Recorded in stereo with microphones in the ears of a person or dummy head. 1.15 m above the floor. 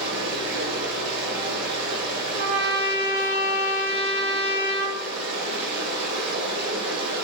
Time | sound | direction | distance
0.0 | running water | 65° right (ahead or behind) | 1.0 m
2.4 | a trumpet | 65° right (ahead or behind) | 1.4 m